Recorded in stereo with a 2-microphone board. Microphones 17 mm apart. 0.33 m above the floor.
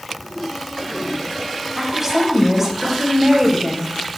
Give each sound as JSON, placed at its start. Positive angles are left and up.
{"t": 1.8, "sound": "a woman speaking", "side_deg": -15, "distance_m": 1.8}